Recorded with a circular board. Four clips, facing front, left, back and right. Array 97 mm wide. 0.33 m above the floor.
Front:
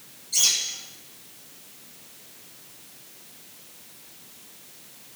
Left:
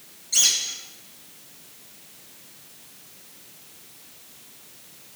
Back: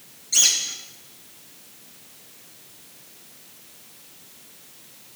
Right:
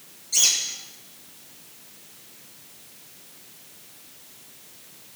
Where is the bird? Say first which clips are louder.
Left 1 dB, back 3 dB; 145° left, 3.5 m.